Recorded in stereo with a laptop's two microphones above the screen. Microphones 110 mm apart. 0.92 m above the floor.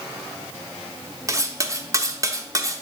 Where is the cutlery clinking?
30° right (ahead or behind), 0.8 m.